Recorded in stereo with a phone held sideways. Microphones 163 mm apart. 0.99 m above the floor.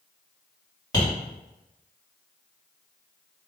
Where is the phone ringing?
No phone ringing in this recording.